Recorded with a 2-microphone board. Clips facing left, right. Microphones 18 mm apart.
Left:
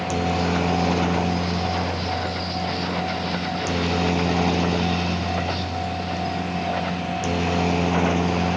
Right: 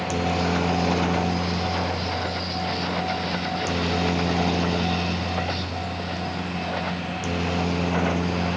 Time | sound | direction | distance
0.0 | a helicopter | centre (ahead or behind) | ?